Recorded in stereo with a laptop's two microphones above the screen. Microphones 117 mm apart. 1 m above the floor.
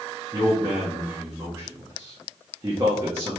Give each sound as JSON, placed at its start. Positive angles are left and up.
{"t": 0.3, "sound": "a man speaking", "side_deg": -20, "distance_m": 1.3}